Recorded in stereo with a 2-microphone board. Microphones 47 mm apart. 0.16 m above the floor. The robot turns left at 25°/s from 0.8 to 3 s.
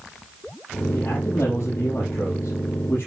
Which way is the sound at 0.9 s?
100° left.